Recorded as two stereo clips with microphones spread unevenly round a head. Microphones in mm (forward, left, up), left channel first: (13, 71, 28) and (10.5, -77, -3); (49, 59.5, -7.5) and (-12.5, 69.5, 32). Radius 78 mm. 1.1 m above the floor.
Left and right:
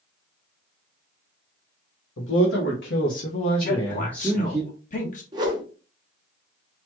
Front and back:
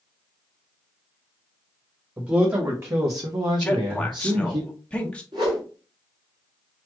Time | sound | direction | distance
2.2 | a man speaking | 100° left | 1.5 m
3.6 | a man speaking | 50° left | 1.5 m
5.3 | a whoosh | 155° right | 1.3 m